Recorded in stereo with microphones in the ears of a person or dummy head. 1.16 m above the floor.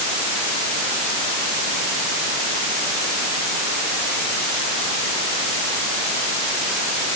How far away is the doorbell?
I don't hear a doorbell.